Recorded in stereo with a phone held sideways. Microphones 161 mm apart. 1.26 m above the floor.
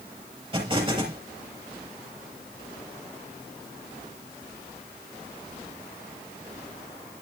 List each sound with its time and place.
0.5 s an explosion: 30° right (ahead or behind), 5 m